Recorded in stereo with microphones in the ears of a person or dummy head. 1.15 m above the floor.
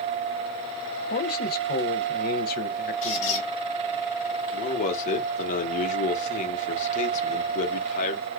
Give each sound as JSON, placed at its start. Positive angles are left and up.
{"t": 1.1, "sound": "a man speaking", "side_deg": 50, "distance_m": 0.6}
{"t": 3.0, "sound": "a squeak", "side_deg": 40, "distance_m": 1.4}
{"t": 4.5, "sound": "a man speaking", "side_deg": 45, "distance_m": 1.0}